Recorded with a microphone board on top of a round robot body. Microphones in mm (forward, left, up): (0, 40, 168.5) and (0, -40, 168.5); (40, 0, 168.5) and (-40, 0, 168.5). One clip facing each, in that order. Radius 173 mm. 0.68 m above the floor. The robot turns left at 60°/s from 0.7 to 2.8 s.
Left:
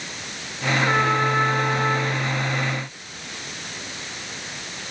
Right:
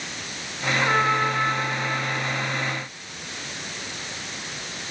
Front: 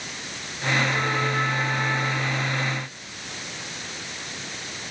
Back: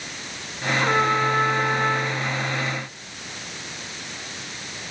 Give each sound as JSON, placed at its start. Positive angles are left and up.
{"t": 0.8, "sound": "a trumpet", "azimuth_deg": -165, "distance_m": 4.5}